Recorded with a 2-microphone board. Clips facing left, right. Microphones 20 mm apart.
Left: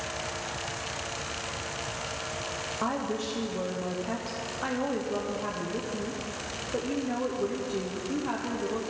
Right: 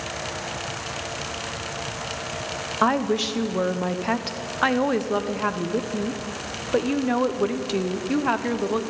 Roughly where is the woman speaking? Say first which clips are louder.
Right 11 dB; right.